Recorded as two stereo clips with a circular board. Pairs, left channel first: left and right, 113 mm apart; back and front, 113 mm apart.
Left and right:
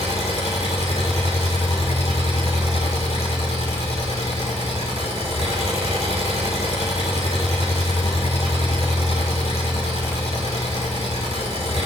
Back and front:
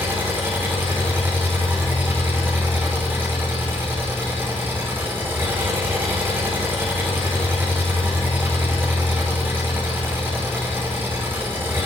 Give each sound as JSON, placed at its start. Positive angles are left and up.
{"t": 0.0, "sound": "an engine running", "azimuth_deg": 70, "distance_m": 7.0}